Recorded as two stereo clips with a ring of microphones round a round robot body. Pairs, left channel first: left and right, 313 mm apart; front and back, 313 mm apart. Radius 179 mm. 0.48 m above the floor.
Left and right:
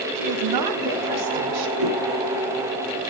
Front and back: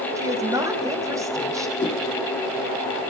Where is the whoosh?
75° right, 8 m.